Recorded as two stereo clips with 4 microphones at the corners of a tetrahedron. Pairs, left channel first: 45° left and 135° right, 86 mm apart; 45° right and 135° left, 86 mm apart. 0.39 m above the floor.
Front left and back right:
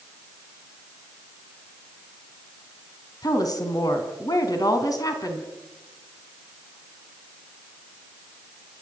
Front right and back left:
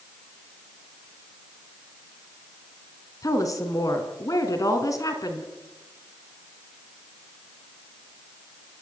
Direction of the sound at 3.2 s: 5° left.